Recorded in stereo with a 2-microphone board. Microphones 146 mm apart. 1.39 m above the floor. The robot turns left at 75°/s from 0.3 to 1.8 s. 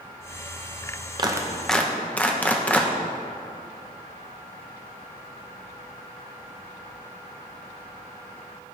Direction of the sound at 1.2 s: 30° right (ahead or behind).